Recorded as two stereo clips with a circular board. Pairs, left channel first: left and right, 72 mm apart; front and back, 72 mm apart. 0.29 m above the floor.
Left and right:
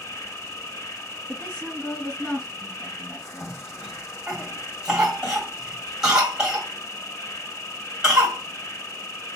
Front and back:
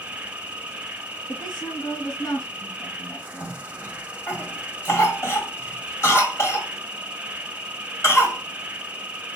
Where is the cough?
15° right, 1.9 m.